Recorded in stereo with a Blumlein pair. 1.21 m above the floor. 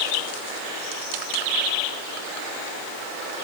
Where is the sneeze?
No sneeze in this recording.